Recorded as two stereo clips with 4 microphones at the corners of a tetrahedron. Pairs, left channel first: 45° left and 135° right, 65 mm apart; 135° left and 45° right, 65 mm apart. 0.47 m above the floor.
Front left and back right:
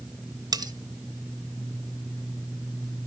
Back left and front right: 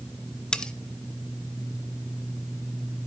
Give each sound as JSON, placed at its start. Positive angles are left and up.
{"t": 0.5, "sound": "cutlery clinking", "azimuth_deg": -150, "distance_m": 1.2}